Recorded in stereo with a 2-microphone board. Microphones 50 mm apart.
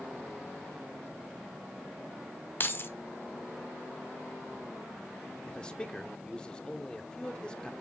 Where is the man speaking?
15° left (ahead or behind), 1.0 m.